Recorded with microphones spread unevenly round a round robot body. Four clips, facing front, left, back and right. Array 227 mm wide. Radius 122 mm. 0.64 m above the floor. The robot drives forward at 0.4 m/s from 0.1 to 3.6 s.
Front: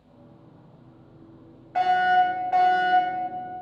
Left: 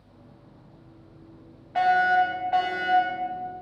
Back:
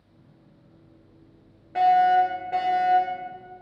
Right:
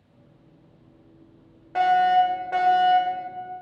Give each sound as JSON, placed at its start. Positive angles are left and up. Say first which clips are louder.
{"t": 1.8, "sound": "a fire alarm", "louder": "right 2 dB, back 2 dB", "azimuth_deg": -115, "distance_m": 4.0}